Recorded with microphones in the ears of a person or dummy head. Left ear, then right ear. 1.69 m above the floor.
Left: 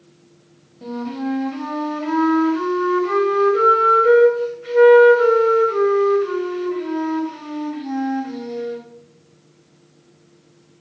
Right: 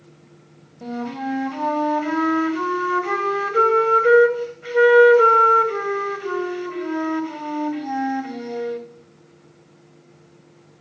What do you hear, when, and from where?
0.8 s a flute: 30° right (ahead or behind), 1.1 m